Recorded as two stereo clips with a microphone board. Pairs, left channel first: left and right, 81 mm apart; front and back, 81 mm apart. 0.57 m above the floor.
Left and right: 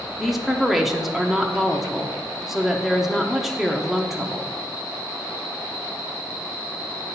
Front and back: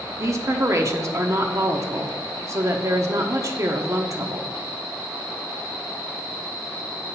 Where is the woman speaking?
175° right, 0.9 m.